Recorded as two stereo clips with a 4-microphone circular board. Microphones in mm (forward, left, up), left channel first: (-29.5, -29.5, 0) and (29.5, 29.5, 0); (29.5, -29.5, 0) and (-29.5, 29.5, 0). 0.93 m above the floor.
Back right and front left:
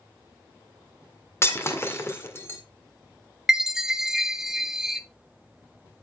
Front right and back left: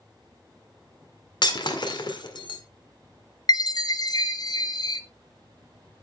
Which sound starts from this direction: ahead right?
A chime, at 3.5 s.